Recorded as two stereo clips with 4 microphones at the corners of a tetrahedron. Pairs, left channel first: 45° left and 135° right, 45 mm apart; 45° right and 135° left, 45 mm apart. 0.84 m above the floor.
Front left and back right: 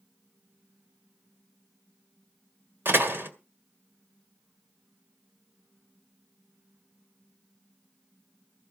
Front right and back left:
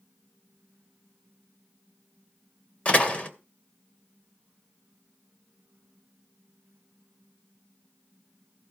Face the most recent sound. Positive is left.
turn(degrees=-105)